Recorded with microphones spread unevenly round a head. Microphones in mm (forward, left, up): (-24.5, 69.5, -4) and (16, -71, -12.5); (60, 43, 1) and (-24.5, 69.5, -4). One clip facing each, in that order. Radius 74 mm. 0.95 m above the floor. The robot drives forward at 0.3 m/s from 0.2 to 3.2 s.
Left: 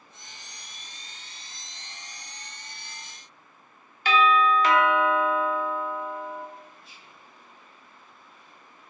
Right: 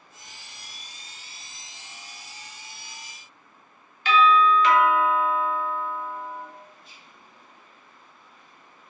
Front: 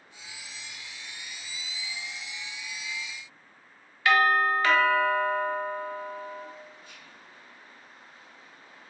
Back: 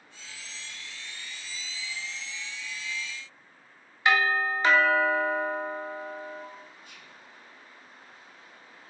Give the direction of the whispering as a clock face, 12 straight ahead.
5 o'clock.